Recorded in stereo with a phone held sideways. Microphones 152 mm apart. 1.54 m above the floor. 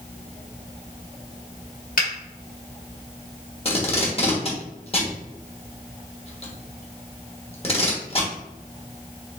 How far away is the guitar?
No guitar in this recording.